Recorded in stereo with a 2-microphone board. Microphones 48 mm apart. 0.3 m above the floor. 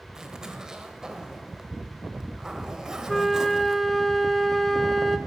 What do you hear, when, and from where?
0.1 s a zipper: 15° right (ahead or behind), 0.9 m
3.1 s a flute: centre (ahead or behind), 0.8 m